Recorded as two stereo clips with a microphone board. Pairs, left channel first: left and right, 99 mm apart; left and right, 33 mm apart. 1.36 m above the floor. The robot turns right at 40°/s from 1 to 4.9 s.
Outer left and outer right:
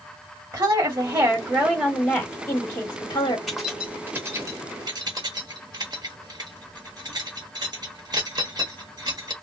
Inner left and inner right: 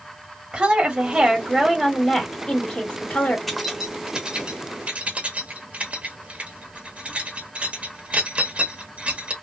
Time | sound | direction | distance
0.5 | a woman speaking | 50° right | 1.5 m
3.5 | keys jangling | 5° left (ahead or behind) | 1.1 m